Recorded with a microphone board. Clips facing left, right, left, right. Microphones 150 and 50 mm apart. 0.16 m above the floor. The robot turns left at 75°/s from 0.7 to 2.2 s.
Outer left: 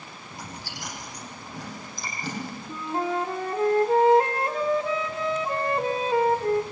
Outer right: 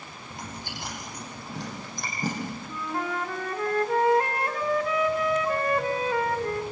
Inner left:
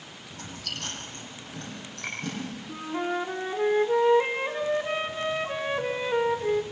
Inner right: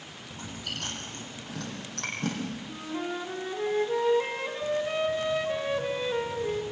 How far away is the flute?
About 1.7 m.